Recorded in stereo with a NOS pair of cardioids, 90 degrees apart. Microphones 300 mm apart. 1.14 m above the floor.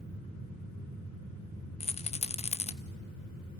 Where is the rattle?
20° left, 0.9 m.